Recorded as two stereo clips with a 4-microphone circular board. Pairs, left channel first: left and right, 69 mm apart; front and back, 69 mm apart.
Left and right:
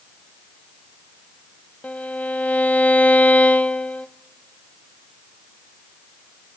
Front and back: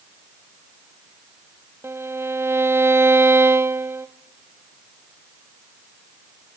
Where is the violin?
150° left, 0.6 m.